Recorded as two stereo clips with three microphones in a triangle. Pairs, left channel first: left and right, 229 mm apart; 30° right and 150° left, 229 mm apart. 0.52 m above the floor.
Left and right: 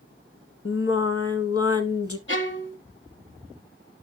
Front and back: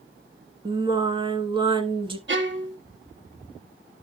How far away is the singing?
About 1.0 m.